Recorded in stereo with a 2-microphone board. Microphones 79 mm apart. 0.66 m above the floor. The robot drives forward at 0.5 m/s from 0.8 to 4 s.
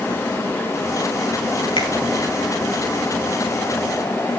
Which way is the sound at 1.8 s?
85° left.